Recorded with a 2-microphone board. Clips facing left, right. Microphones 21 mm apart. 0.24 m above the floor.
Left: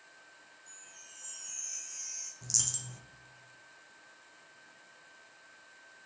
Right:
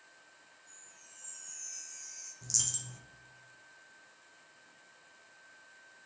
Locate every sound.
0.7 s a chime: 75° left (ahead or behind), 0.8 m
2.4 s a dropped coin: 10° left (ahead or behind), 0.5 m